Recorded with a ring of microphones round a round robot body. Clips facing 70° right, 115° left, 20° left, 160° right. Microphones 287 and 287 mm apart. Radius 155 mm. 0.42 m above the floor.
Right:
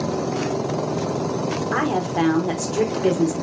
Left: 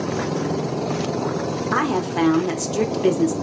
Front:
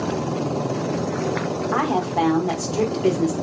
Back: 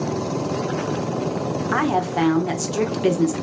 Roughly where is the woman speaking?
Behind.